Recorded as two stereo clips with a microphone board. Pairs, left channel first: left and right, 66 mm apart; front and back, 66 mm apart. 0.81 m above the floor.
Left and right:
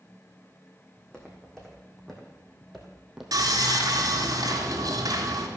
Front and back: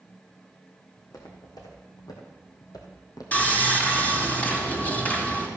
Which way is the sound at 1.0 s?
10° left.